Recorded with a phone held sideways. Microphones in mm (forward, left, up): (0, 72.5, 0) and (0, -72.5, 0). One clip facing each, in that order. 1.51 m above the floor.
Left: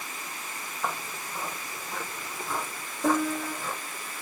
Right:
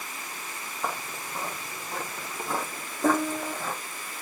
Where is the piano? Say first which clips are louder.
Right 1 dB; 15° right (ahead or behind), 0.9 m.